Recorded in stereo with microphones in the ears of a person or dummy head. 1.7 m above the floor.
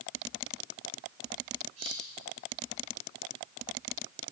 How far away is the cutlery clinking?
About 4.5 m.